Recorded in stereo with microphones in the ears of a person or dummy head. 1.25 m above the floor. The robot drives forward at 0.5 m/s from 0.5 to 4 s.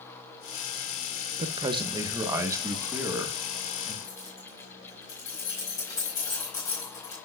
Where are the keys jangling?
20° left (ahead or behind), 5 m.